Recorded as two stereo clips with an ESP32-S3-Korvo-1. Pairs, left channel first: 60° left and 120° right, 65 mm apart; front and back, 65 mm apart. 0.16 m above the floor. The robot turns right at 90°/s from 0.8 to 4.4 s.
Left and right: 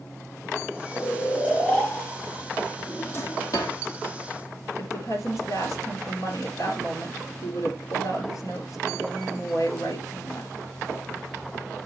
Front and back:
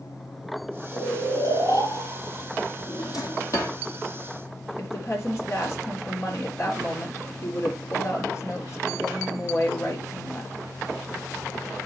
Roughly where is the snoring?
Behind left.